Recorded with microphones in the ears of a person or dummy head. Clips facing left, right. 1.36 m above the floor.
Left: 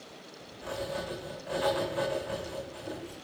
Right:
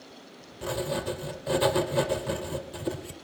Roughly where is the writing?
Right.